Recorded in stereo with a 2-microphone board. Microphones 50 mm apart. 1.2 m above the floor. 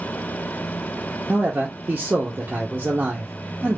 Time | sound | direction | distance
1.3 | a man speaking | 35° right (ahead or behind) | 0.7 m